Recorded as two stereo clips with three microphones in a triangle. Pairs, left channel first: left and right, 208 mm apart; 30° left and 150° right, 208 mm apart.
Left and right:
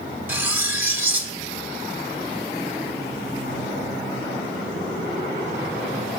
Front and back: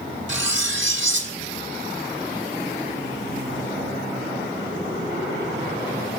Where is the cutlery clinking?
170° right, 1.2 m.